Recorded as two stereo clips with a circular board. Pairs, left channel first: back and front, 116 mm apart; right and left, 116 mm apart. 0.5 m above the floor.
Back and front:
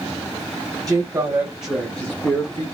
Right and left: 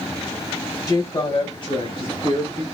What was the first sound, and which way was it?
A woman speaking, 45° right.